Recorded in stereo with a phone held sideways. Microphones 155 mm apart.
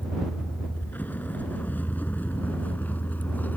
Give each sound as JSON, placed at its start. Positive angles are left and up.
{"t": 0.0, "sound": "a vehicle", "side_deg": 10}